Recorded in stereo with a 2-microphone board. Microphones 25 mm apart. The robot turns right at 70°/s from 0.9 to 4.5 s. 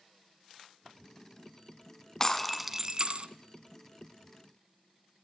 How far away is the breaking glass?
About 1.3 m.